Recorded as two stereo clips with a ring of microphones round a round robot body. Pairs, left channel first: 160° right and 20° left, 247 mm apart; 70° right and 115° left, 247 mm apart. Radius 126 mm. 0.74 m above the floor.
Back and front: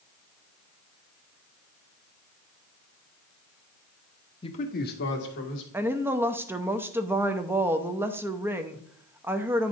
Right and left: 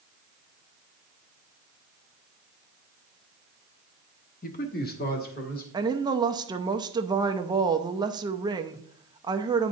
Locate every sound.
4.4 s a man speaking: 100° right, 0.9 m; by 5.6 s 120° right, 2.5 m
5.7 s a woman speaking: 85° left, 0.6 m